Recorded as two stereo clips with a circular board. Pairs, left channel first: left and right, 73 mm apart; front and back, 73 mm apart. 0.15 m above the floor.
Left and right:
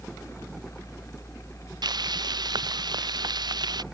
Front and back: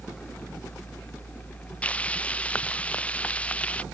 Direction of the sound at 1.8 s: 75° right.